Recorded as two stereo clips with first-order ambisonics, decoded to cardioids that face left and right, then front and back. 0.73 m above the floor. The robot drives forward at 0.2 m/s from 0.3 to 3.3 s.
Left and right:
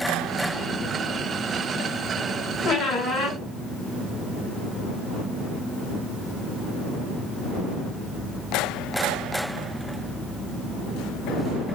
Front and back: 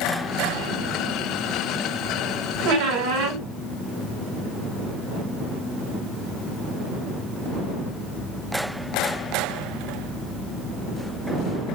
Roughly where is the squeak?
Behind left.